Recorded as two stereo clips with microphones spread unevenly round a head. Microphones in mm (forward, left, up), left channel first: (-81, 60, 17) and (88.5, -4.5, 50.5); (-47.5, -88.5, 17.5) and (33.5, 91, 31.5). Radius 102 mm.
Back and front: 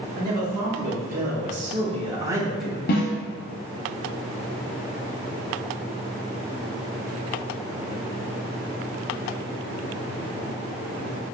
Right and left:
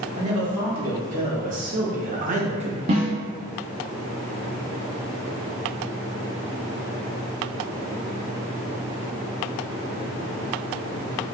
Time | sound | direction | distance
0.1 | a man speaking | 10° left | 2.0 m
2.9 | a snare drum | 125° left | 0.8 m